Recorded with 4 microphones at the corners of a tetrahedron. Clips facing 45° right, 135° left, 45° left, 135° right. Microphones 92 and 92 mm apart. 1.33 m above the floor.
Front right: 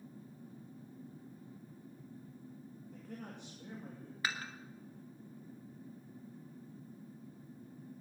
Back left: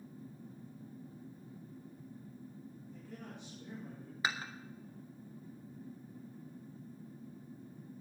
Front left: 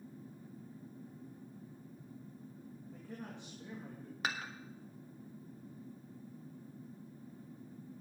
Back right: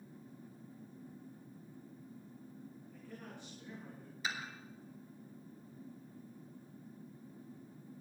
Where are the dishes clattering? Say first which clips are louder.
Back left 2 dB, front left 2 dB; 65° left, 1.4 m.